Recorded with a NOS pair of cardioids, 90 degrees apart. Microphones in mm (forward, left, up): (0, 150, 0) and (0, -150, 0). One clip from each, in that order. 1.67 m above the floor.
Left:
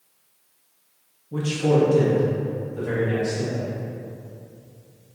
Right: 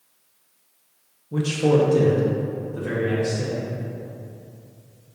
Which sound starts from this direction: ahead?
A man speaking, at 1.3 s.